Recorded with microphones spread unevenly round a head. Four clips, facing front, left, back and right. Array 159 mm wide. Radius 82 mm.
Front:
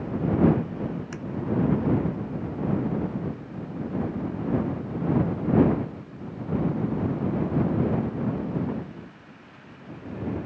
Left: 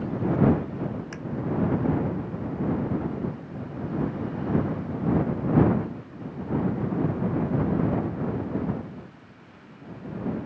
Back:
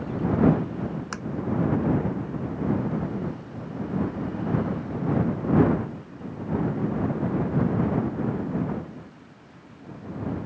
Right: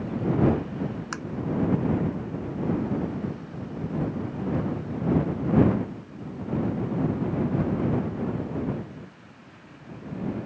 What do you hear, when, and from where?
1.1 s tapping: 140° right